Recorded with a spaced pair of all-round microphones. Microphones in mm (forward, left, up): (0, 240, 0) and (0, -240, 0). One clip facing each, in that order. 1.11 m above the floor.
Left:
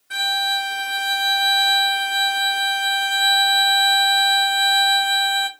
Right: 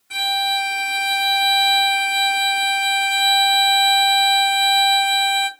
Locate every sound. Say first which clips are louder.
0.1 s a violin: right 3 dB; 20° right (ahead or behind), 1.1 m